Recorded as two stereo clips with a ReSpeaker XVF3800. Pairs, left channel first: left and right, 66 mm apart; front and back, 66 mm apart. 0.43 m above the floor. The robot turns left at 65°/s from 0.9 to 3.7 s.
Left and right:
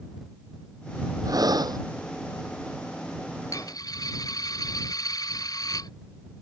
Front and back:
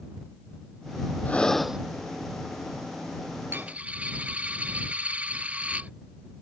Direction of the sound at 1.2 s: 65° right.